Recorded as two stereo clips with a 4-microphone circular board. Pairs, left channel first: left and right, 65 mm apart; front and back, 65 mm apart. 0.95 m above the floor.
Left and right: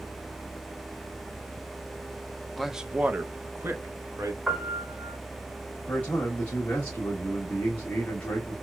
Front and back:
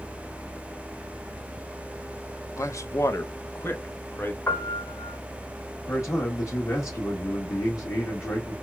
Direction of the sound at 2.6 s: 5° left.